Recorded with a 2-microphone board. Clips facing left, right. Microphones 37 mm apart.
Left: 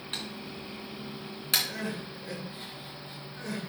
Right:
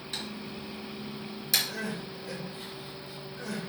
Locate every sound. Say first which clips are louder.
0.1 s typing on a keyboard: even; 45° left (ahead or behind), 2.5 m
1.7 s crying: even; 40° left (ahead or behind), 2.5 m